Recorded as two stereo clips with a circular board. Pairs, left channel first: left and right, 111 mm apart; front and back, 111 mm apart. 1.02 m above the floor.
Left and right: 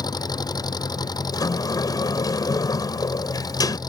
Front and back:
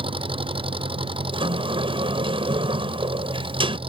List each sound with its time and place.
0.0 s an engine running: 145° left
1.3 s a sliding door: 145° left